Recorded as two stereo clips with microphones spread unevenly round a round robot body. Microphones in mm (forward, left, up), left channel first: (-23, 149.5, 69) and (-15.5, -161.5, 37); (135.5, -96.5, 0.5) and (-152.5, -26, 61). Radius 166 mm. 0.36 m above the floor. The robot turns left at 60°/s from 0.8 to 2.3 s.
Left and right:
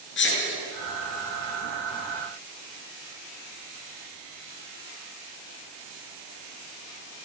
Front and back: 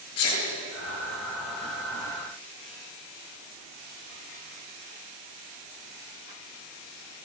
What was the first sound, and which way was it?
A sneeze, 35° left.